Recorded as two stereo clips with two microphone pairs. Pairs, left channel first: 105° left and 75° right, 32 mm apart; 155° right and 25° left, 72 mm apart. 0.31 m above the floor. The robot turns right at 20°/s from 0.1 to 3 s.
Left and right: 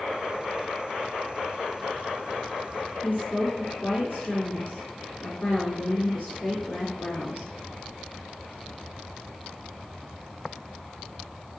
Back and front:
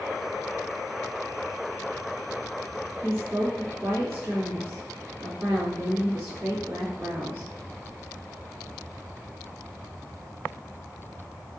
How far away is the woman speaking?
About 3.5 m.